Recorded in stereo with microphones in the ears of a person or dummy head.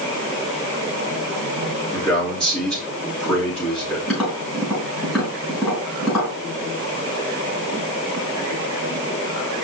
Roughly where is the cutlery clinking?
No cutlery clinking in this recording.